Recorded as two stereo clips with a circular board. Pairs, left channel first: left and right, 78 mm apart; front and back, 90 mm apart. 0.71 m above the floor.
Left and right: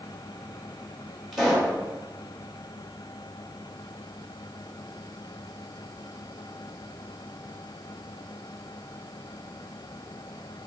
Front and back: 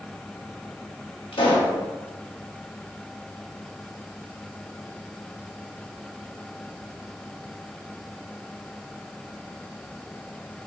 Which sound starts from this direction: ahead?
A pop, at 1.3 s.